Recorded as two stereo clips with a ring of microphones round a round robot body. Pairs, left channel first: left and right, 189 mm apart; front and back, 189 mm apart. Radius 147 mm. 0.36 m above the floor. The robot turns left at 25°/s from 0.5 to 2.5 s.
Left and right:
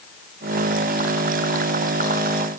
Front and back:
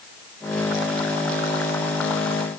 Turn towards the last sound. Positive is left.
No sound to turn to.